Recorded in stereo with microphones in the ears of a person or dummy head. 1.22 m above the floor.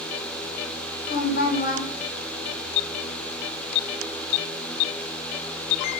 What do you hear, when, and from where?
1.1 s a woman speaking: 50° left (ahead or behind), 0.8 m